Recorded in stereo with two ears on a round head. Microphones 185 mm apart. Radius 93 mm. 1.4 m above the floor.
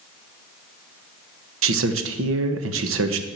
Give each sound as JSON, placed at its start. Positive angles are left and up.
{"t": 1.6, "sound": "a man speaking", "side_deg": -70, "distance_m": 1.2}